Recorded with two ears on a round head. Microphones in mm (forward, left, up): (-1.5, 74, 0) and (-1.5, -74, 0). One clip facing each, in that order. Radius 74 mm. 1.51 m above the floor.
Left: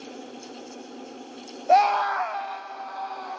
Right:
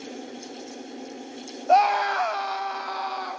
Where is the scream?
10° left (ahead or behind), 0.9 m; by 3.4 s 80° right, 2 m.